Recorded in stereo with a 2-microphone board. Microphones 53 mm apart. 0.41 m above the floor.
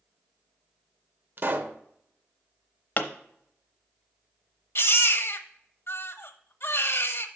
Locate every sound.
1.4 s a pop: 45° right (ahead or behind), 0.6 m
3.0 s a pop: 35° left (ahead or behind), 0.8 m
4.8 s a baby crying: 55° left (ahead or behind), 0.7 m